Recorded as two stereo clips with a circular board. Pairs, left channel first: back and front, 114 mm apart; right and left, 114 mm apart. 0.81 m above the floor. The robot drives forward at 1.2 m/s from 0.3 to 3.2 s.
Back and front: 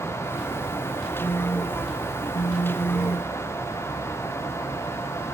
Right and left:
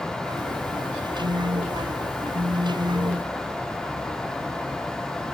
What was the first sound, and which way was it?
A phone buzzing, 110° left.